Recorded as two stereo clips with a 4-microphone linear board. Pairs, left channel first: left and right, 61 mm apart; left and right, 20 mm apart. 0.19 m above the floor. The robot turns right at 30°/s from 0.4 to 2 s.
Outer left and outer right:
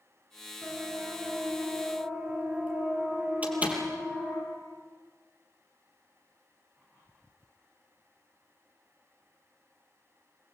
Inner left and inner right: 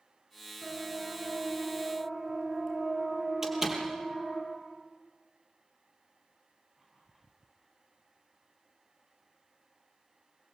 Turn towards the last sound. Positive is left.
turn(degrees=-20)  # may be behind; listen again after turning